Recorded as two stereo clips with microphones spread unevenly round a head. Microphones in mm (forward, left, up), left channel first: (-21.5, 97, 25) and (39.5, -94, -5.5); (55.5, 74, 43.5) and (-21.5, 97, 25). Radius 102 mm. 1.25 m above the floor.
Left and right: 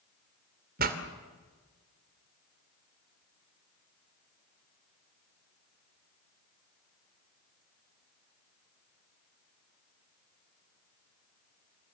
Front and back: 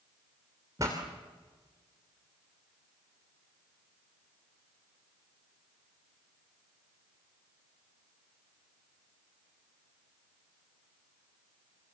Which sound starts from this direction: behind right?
A pop, at 0.8 s.